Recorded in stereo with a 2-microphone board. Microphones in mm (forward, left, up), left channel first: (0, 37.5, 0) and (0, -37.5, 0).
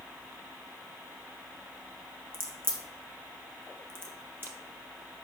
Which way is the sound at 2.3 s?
30° right (ahead or behind).